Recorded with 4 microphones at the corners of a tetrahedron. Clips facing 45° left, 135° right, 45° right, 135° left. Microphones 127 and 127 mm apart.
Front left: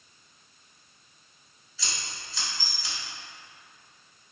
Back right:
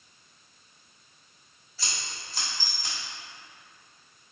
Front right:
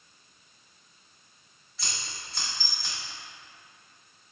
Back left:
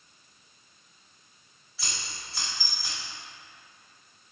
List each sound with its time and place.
1.8 s scissors: 140° right, 1.7 m